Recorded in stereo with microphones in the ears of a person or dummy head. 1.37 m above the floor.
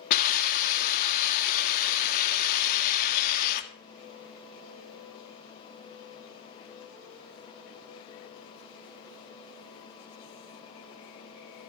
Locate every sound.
0.1 s a hiss: 55° left (ahead or behind), 1.5 m